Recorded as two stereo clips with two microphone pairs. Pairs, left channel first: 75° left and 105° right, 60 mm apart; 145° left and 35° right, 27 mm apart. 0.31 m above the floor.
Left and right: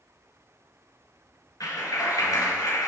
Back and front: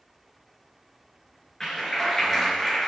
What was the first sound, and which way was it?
A clap, 70° left.